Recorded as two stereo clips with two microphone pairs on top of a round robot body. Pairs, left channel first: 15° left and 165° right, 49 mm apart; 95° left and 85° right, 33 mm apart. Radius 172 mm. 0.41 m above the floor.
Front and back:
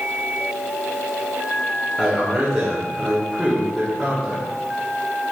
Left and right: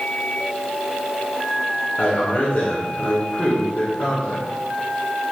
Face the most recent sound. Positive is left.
turn(degrees=120)